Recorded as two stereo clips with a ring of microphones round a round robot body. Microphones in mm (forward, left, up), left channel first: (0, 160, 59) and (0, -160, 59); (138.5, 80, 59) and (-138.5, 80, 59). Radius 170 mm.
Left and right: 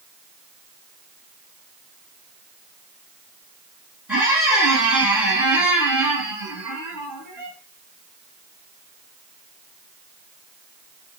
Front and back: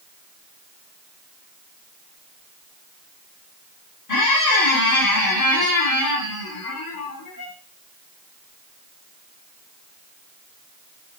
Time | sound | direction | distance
4.1 | a squeak | straight ahead | 2 m